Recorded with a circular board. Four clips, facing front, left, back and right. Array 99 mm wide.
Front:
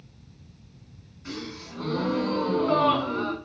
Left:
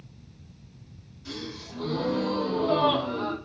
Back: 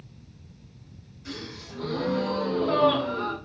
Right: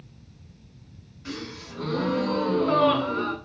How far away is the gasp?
About 1.3 m.